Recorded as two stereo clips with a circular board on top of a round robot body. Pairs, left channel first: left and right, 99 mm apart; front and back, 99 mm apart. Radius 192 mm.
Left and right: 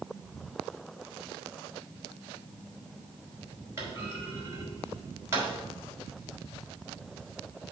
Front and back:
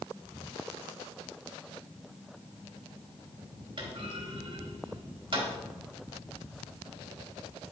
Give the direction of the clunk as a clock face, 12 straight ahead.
5 o'clock.